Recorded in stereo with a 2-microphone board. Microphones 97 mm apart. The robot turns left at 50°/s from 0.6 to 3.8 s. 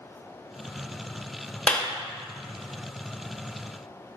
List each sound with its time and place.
1.7 s a clap: 10° left (ahead or behind), 1.1 m; by 1.9 s 20° left (ahead or behind), 1.1 m